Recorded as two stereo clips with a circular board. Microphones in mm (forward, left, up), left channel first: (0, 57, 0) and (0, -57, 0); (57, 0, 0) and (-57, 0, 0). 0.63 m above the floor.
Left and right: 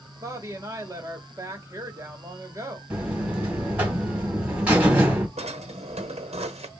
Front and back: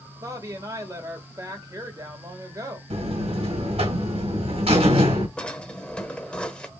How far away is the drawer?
About 0.9 m.